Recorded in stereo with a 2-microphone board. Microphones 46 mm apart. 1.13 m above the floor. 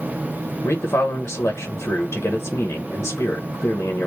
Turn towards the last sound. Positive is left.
turn(degrees=65)  # may be behind; listen again after turning